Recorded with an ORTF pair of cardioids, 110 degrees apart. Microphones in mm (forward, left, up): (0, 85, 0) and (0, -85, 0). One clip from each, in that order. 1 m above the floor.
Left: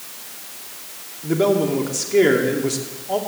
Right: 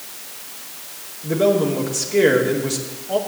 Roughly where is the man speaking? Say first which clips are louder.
Right 1 dB; ahead.